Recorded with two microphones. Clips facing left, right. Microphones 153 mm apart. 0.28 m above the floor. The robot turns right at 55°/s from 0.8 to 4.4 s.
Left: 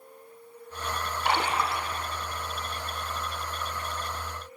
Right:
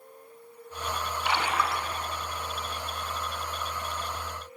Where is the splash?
130° left, 1.0 m; by 1.9 s 165° left, 1.0 m.